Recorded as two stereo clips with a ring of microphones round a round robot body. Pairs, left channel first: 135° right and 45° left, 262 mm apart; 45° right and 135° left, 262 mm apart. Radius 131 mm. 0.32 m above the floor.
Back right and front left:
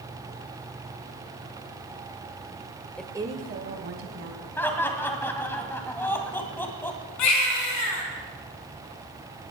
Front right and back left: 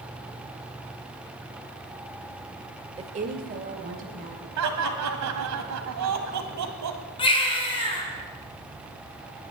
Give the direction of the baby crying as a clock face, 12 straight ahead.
4 o'clock.